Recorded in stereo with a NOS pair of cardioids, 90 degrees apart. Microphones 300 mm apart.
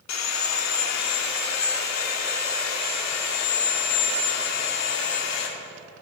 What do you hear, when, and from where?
0.1 s sawing: 65° left, 2 m